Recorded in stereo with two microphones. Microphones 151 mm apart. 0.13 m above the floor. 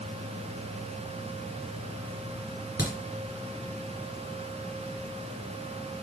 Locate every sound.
2.8 s a crack: 20° right (ahead or behind), 2.5 m